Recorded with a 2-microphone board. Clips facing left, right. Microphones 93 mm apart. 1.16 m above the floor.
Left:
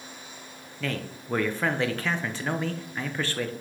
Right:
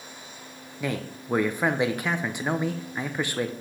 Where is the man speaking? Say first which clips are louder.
Right 2 dB; 15° right (ahead or behind), 0.6 m.